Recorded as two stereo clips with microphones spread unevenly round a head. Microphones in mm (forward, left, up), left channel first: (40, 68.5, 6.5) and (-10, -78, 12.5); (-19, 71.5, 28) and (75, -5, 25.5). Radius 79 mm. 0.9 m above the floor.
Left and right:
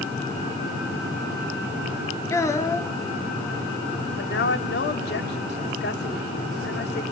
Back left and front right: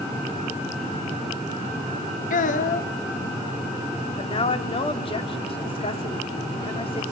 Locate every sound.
2.3 s a child speaking: 140° left, 1.0 m
4.2 s a woman speaking: 95° left, 1.7 m